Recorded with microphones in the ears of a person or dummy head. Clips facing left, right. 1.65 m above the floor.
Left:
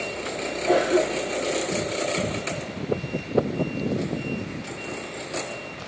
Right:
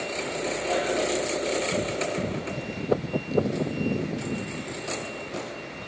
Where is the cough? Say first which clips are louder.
Left 7 dB; 60° left (ahead or behind), 1.6 m.